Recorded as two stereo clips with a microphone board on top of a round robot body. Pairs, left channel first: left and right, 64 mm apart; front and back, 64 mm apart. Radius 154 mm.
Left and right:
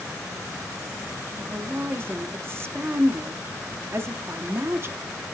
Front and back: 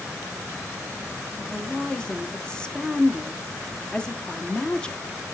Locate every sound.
1.4 s a woman speaking: 65° right, 1.1 m